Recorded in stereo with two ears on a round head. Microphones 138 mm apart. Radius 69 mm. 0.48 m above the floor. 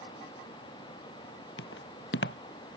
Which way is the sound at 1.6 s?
80° left.